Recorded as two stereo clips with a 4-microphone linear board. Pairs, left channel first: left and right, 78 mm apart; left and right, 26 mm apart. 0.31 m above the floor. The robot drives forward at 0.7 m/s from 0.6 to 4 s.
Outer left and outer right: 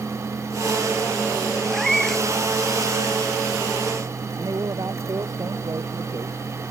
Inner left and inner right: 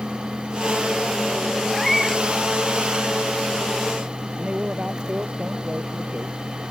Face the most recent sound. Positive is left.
turn(degrees=-55)  # may be behind; listen again after turning